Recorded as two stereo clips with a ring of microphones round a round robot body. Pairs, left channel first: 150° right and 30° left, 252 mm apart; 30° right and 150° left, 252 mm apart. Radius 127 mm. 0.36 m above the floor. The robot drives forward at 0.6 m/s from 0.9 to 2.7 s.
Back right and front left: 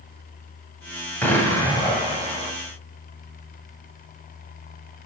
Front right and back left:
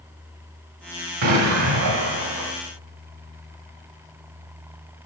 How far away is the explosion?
About 1.7 m.